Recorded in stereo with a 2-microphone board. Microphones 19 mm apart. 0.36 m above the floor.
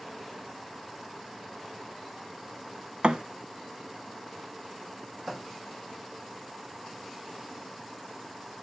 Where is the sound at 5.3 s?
45° right (ahead or behind), 6.5 m.